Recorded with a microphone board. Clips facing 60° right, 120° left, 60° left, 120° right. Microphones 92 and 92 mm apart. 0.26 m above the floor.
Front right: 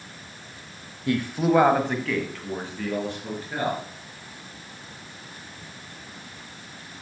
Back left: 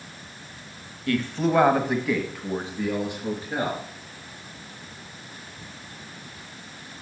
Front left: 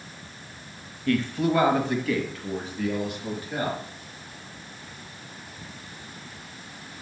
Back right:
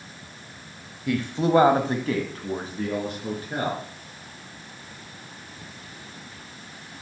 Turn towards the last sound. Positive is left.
turn(degrees=-170)